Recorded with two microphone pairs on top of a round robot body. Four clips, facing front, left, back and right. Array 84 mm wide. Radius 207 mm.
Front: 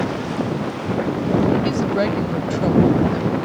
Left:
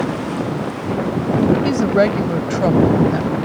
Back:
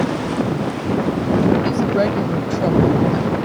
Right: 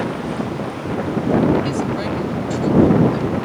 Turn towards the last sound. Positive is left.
turn(degrees=95)